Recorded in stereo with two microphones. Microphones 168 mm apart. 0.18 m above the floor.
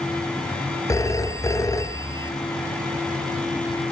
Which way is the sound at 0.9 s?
20° left (ahead or behind).